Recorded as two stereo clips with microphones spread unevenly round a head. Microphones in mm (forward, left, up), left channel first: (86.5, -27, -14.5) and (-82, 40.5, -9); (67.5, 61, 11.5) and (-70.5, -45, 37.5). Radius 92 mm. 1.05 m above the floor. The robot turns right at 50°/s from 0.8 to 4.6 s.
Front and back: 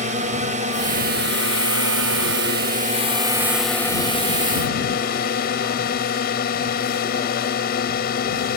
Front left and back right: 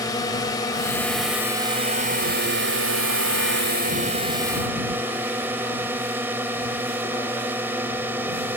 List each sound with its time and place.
0.0 s a drone: 105° left; by 8.6 s 65° right